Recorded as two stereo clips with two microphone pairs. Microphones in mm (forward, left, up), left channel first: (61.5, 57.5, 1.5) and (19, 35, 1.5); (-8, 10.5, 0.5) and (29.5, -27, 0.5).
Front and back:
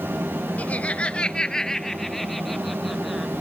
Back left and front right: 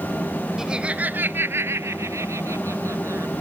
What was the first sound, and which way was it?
Laughter, 30° left.